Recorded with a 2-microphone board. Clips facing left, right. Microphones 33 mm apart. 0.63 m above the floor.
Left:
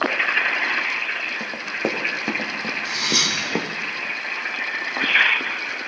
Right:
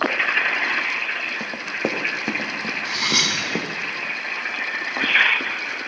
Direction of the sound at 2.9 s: 35° right (ahead or behind).